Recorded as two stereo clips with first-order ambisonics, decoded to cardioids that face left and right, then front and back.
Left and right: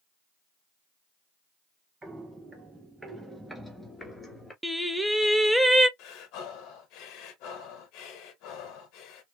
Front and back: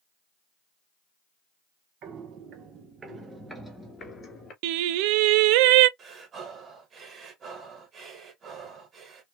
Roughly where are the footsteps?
Behind.